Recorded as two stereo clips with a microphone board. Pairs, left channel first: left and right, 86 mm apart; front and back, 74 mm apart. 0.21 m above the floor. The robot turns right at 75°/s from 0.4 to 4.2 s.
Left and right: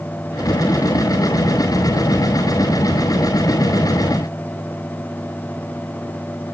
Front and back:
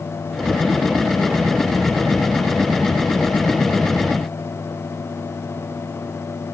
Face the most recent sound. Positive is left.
No sound to turn to.